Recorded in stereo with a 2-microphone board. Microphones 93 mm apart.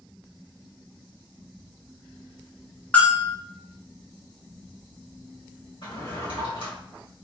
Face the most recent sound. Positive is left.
turn(degrees=75)  # may be behind; listen again after turning